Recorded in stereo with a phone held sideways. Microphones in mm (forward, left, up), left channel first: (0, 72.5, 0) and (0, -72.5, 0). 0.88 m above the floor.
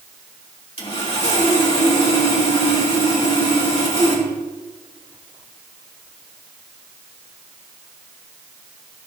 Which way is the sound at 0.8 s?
45° left (ahead or behind).